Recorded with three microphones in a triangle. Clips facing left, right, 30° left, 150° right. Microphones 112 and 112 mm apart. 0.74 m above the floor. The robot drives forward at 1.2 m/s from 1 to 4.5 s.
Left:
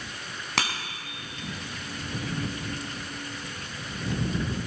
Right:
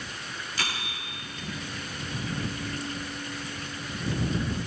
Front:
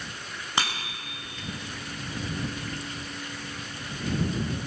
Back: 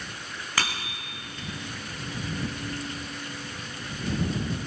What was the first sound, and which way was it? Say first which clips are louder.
A bicycle bell: left 5 dB, front 1 dB; 100° left.